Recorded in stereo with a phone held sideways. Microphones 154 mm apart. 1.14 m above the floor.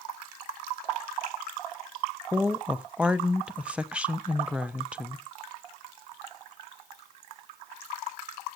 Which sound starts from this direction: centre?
A woman speaking, at 2.3 s.